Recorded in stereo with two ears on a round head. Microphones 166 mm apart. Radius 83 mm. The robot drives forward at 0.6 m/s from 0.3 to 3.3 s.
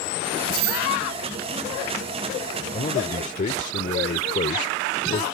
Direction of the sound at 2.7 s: 35° left (ahead or behind).